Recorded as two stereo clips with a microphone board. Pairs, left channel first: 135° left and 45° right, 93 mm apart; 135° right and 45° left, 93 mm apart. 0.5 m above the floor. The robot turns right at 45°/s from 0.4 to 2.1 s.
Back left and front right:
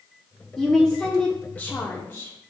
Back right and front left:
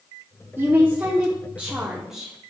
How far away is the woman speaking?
About 1.0 m.